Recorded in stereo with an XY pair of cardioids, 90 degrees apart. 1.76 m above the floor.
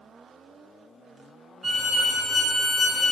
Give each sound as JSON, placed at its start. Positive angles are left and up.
{"t": 1.6, "sound": "a violin", "azimuth_deg": -30, "distance_m": 1.3}